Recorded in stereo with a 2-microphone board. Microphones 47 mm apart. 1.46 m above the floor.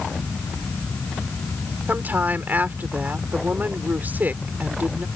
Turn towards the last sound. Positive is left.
turn(degrees=-40)  # may be behind; listen again after turning